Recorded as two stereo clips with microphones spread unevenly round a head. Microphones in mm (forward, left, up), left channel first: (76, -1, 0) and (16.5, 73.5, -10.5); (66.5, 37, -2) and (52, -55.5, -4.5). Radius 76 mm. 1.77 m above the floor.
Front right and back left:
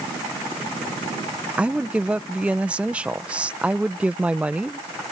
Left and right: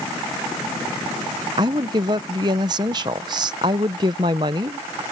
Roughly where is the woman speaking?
Behind right.